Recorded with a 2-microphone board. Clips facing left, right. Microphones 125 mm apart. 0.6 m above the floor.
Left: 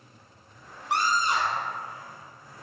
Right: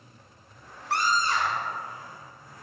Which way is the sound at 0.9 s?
20° left (ahead or behind).